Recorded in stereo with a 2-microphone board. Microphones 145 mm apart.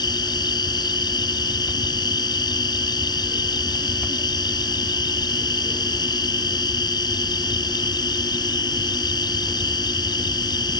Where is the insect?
30° left (ahead or behind).